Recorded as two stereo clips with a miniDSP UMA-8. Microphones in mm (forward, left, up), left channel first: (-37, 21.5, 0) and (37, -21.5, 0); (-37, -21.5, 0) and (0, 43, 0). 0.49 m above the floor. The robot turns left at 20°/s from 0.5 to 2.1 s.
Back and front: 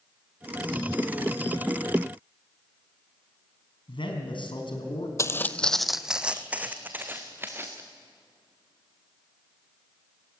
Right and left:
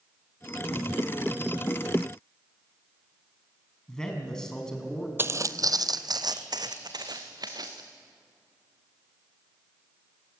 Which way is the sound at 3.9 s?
160° left.